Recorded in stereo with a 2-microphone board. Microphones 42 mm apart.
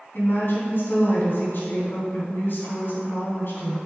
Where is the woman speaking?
60° left (ahead or behind), 3 m.